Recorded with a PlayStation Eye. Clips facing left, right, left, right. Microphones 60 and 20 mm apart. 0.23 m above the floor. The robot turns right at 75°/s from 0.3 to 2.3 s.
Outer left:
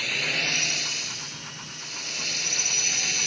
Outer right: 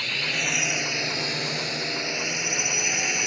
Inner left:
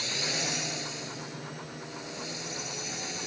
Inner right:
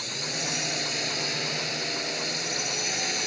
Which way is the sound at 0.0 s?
175° left.